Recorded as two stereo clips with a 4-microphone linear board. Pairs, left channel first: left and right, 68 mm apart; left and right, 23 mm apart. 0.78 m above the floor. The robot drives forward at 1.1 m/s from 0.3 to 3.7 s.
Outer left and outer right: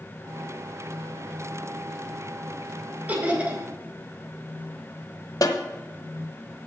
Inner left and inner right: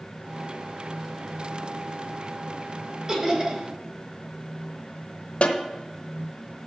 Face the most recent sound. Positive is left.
turn(degrees=65)  # may be behind; listen again after turning